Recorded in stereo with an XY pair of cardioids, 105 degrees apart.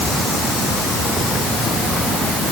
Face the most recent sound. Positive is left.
No sound to turn to.